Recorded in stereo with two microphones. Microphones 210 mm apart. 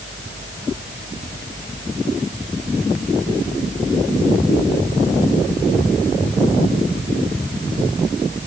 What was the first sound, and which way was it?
Only background noise.